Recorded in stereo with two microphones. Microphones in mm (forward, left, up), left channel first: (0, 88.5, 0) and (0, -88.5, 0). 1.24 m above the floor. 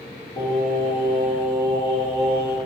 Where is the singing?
30° left (ahead or behind), 2.5 m.